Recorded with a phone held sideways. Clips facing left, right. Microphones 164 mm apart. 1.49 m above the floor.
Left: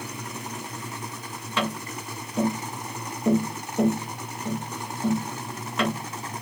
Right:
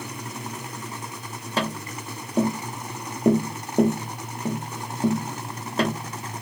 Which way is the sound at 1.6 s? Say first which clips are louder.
Right 1 dB; 35° right (ahead or behind).